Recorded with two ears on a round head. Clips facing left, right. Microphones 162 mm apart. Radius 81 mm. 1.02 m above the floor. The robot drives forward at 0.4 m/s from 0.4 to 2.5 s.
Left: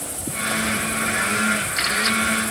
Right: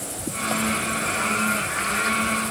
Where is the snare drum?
No snare drum in this recording.